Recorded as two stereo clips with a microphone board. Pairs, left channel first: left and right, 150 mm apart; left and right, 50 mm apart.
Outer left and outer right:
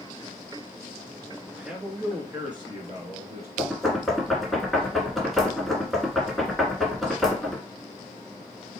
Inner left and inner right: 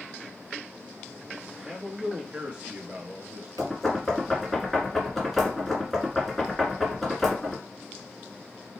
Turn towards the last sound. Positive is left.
turn(degrees=0)  # may be behind; listen again after turning